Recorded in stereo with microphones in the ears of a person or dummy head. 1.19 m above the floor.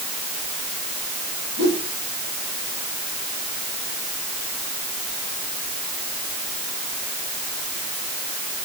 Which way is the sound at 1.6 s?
65° right (ahead or behind).